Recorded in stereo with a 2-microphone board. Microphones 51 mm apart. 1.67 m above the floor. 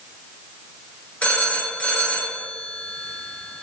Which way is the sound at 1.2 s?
25° left (ahead or behind).